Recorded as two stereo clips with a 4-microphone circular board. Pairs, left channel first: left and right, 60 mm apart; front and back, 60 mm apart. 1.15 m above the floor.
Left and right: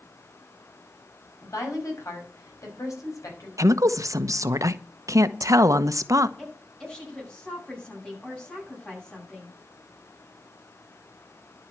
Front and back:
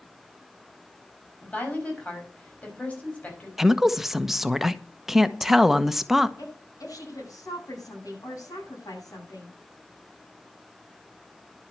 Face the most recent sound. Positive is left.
turn(degrees=15)